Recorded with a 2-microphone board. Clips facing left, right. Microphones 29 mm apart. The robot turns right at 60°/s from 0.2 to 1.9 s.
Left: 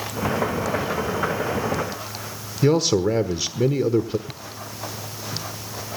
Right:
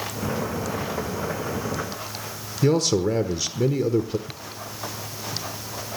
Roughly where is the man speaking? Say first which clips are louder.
Left 2 dB; centre.